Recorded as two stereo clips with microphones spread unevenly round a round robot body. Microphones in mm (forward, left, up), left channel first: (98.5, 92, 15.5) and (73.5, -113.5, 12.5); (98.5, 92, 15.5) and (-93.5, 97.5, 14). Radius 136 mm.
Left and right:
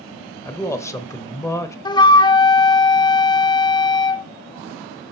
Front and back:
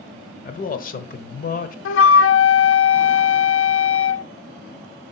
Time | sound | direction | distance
0.5 | a man speaking | 10° left | 1.2 m
1.9 | a flute | 10° left | 0.6 m